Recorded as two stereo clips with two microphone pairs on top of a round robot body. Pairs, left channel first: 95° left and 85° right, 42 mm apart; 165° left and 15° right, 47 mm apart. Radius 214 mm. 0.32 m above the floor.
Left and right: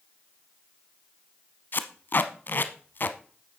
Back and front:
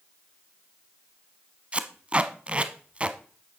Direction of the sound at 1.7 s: 50° left.